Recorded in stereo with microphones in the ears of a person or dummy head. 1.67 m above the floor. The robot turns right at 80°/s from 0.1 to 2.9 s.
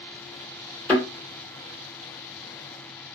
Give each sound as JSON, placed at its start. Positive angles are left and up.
{"t": 0.9, "sound": "a thud", "side_deg": 5, "distance_m": 2.0}